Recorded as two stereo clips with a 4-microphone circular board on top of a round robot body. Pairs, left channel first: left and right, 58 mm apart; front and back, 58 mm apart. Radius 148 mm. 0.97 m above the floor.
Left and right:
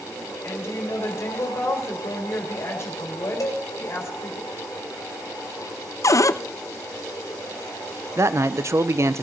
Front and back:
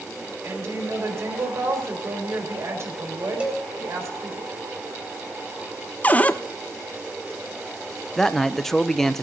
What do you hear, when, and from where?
0.4 s a woman speaking: 135° left, 4 m
3.4 s a cowbell: 110° left, 3 m
6.0 s a cupboard door: 65° left, 0.6 m
8.2 s a man speaking: 85° right, 0.8 m